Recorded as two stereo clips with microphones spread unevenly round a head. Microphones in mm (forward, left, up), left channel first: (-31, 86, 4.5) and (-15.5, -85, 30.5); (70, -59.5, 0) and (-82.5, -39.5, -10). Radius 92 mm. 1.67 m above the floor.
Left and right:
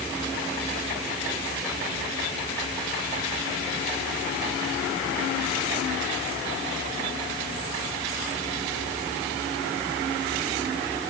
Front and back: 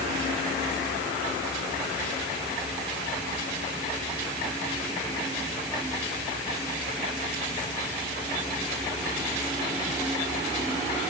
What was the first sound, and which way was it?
Only background noise.